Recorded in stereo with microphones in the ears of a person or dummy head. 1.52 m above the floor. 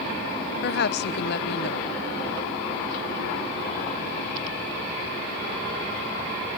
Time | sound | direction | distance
0.6 | a woman speaking | 60° left (ahead or behind) | 1.2 m